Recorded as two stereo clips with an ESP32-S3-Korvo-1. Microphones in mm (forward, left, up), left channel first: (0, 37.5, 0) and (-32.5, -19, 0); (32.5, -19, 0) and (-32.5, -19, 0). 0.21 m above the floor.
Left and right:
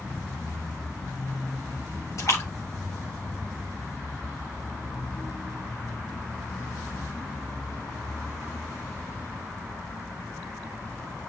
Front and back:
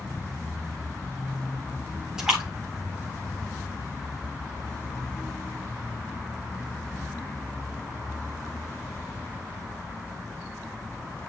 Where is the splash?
100° left, 8 m.